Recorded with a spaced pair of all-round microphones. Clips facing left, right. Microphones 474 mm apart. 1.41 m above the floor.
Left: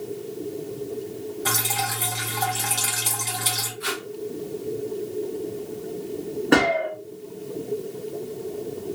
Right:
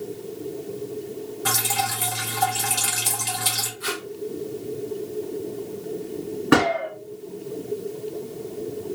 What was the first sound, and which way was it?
Dripping, 30° right (ahead or behind).